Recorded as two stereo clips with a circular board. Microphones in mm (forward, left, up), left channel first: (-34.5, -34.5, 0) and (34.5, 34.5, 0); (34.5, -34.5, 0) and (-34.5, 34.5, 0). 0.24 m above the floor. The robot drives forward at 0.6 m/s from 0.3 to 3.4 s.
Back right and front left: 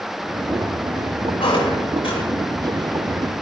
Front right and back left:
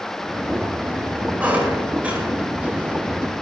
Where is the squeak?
150° right, 8 m; by 2.2 s 155° right, 8.5 m.